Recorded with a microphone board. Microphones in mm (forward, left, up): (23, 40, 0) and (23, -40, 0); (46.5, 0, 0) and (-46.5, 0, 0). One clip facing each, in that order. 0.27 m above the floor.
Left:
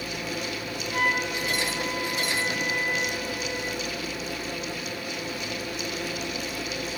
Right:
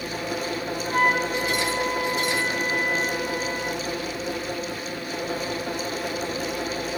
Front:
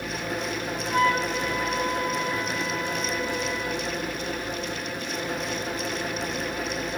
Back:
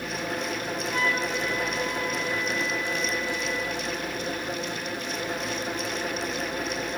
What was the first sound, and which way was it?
A flute, 45° right.